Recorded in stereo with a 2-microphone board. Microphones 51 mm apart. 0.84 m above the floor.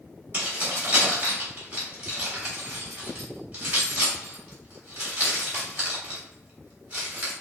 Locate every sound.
0.3 s keys jangling: 40° right (ahead or behind), 2.5 m